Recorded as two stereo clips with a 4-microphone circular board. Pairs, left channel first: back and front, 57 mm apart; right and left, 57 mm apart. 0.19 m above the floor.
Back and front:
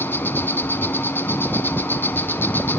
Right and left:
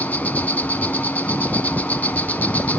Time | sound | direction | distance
0.0 | an insect | 140° right | 0.9 m